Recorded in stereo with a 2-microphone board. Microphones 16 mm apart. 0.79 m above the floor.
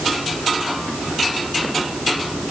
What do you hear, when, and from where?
Only background noise.